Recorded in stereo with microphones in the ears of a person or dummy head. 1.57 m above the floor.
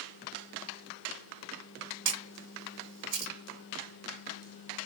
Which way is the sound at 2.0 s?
65° right (ahead or behind).